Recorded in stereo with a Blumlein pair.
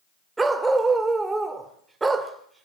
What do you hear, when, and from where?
0.4 s a dog barking: 10° right, 1.8 m